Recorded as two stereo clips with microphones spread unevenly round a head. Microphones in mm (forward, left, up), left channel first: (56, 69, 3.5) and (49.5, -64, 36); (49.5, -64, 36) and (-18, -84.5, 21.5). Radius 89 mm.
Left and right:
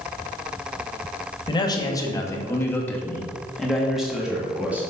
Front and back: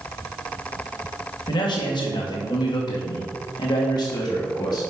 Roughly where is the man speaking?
Ahead left.